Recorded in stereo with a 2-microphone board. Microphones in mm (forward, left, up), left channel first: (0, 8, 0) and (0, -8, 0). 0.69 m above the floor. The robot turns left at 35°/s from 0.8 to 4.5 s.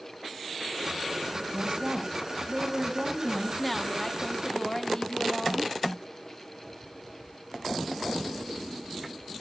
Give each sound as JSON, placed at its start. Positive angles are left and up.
{"t": 1.5, "sound": "a woman speaking", "azimuth_deg": -110, "distance_m": 5.0}
{"t": 3.6, "sound": "a woman speaking", "azimuth_deg": 170, "distance_m": 1.0}